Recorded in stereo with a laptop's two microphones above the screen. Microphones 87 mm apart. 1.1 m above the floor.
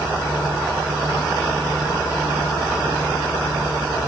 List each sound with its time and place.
Only background noise.